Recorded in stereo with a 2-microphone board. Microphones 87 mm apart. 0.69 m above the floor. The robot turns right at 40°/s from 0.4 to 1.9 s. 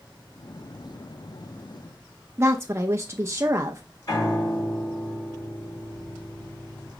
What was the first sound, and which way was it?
A woman speaking, 30° right (ahead or behind).